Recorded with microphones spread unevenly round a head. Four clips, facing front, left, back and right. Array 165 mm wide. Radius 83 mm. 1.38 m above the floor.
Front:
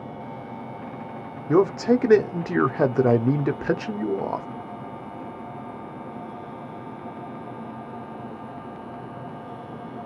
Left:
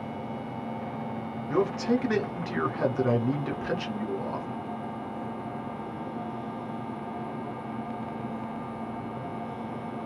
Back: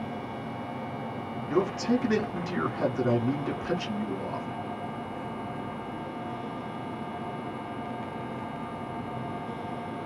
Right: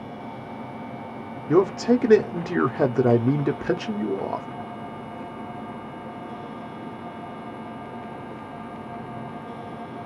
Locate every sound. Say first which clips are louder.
1.5 s a man speaking: right 7 dB, front 7 dB; 40° right, 0.6 m